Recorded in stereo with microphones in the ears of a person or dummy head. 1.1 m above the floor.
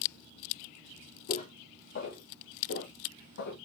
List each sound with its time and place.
1.3 s footsteps: 45° left (ahead or behind), 1.6 m; by 3.6 s 60° left (ahead or behind), 2 m